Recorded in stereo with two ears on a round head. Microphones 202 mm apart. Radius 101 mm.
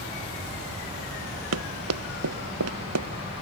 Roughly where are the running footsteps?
Right.